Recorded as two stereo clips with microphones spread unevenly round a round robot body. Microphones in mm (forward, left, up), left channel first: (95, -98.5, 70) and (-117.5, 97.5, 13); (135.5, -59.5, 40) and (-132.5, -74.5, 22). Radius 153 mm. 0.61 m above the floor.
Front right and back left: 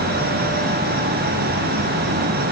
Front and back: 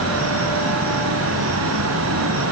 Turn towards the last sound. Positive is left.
No sound to turn to.